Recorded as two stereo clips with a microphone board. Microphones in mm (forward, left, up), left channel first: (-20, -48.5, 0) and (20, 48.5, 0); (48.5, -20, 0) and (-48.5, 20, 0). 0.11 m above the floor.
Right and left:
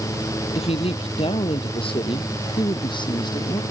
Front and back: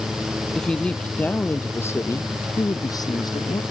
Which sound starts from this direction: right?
A woman speaking, at 0.6 s.